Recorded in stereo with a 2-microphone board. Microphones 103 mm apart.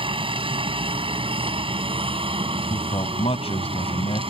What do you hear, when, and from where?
0.0 s a helicopter: 55° right (ahead or behind); by 4.3 s 60° right (ahead or behind)
2.7 s a man speaking: 70° left (ahead or behind)